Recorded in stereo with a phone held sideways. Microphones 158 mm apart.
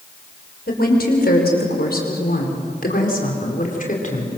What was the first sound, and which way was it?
A woman speaking, 80° left.